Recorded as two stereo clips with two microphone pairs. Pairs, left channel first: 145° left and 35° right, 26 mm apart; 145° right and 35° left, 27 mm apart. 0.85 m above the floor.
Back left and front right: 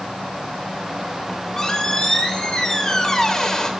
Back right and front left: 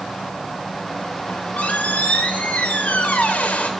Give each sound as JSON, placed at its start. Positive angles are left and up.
{"t": 1.3, "sound": "a squeak", "azimuth_deg": -150, "distance_m": 0.6}